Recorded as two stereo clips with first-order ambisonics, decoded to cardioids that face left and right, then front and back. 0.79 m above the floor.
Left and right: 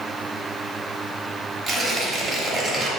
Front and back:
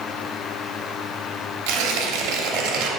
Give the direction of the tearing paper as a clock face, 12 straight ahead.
5 o'clock.